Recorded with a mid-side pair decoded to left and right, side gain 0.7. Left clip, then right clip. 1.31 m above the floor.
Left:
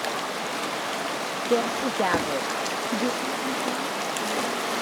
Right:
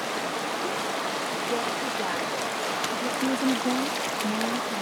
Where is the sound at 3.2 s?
45° right.